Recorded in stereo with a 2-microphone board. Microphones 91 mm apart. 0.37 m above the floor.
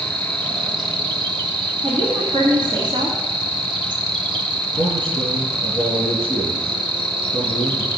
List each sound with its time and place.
0.0 s an insect: 65° right (ahead or behind), 1.2 m
1.8 s a woman speaking: 70° right (ahead or behind), 2.5 m
4.7 s a man speaking: 75° right (ahead or behind), 4.5 m